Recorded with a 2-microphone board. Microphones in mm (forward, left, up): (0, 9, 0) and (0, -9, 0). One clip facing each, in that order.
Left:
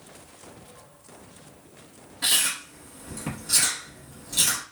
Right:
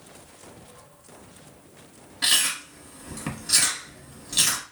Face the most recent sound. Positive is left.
turn(degrees=-30)  # may be behind; listen again after turning